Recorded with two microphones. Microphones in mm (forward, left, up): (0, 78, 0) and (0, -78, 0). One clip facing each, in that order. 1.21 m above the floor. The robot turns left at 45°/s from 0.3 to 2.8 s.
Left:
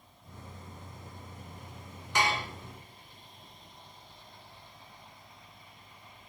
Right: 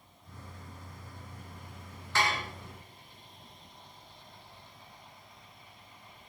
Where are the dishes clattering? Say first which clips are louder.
Left 1 dB; 15° left (ahead or behind), 2.5 m; by 2.5 s 30° left (ahead or behind), 2.5 m.